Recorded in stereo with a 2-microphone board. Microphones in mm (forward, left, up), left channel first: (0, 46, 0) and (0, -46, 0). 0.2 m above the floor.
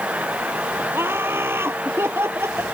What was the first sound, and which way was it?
Laughter, 25° right (ahead or behind).